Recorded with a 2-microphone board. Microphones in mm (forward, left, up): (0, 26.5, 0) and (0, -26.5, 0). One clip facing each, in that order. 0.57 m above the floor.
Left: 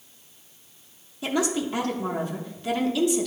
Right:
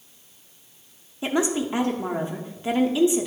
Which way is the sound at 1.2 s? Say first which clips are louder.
Right 2 dB; 25° right (ahead or behind).